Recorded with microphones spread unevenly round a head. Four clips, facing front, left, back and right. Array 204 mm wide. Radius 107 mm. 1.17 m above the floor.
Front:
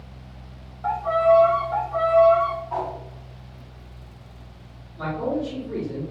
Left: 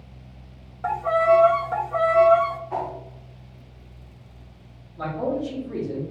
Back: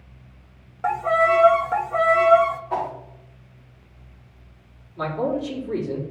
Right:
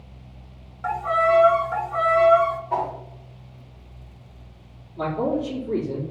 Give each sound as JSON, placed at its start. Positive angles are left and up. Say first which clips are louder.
{"t": 0.8, "sound": "a violin", "louder": "left 2 dB, front 1 dB", "azimuth_deg": 155, "distance_m": 0.5}
{"t": 2.7, "sound": "a whoosh", "louder": "right 3 dB, back 2 dB", "azimuth_deg": -145, "distance_m": 2.5}
{"t": 5.0, "sound": "a man speaking", "louder": "right 2 dB, back 1 dB", "azimuth_deg": -120, "distance_m": 3.0}